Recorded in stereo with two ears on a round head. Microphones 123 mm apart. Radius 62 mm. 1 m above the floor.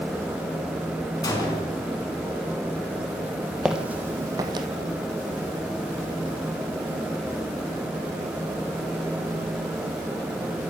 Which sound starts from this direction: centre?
Footsteps, at 3.6 s.